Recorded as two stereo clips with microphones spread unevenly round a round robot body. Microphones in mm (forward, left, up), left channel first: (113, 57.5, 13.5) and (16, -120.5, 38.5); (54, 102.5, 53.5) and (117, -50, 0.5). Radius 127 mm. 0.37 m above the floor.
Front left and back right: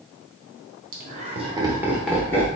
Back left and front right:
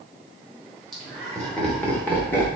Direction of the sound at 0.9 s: 130° right.